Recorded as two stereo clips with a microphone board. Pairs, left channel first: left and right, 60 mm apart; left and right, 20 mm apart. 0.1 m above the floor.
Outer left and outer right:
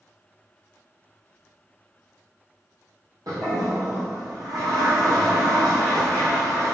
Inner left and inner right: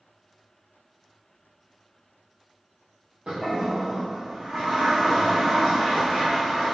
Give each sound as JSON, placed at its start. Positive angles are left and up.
{"t": 3.3, "sound": "a toilet flushing", "side_deg": -80, "distance_m": 4.5}